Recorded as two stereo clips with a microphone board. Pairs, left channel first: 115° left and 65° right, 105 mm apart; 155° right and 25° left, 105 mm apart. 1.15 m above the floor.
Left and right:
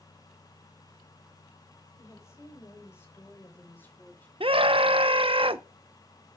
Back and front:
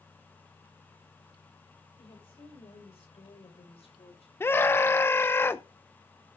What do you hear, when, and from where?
2.0 s a woman speaking: 175° left, 7 m; by 4.3 s 175° right, 5 m
4.4 s a scream: 90° right, 0.7 m